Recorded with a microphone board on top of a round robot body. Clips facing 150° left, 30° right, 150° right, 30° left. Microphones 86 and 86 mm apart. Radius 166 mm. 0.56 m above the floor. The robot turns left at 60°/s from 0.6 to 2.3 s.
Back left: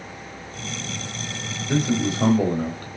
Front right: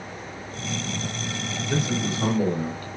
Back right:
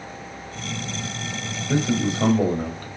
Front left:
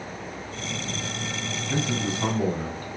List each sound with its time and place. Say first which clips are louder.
1.7 s a man speaking: back left 5 dB, back right 6 dB; 155° right, 2.5 m; by 2.9 s 170° left, 2.5 m